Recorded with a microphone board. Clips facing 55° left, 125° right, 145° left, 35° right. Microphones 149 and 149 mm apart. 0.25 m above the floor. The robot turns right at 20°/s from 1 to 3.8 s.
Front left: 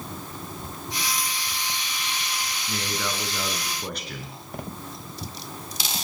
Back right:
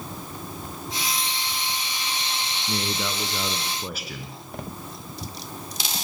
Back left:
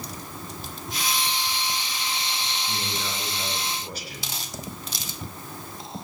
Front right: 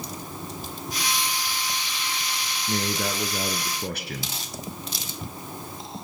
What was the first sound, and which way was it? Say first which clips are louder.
A man speaking: back right 2 dB, front right 5 dB; 65° right.